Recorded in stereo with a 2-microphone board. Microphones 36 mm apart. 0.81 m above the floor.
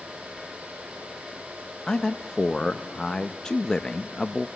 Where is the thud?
I don't hear a thud.